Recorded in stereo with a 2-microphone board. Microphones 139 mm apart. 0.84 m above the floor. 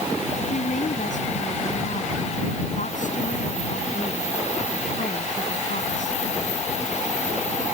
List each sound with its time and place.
0.5 s a woman speaking: 65° left (ahead or behind)